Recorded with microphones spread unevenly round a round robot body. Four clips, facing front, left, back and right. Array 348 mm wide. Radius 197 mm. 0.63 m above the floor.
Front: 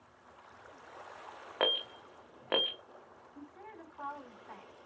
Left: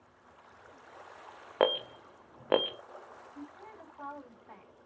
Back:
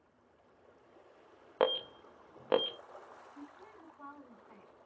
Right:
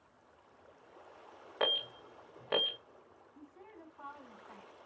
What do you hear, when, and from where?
1.6 s an alarm: 90° left, 0.8 m
3.4 s a woman speaking: 40° left, 4.5 m